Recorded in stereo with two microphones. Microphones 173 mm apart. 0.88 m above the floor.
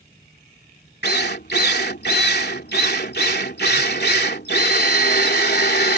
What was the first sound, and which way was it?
A drill, 70° left (ahead or behind).